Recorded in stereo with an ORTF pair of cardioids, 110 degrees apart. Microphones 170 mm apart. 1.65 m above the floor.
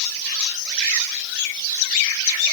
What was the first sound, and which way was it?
Only background noise.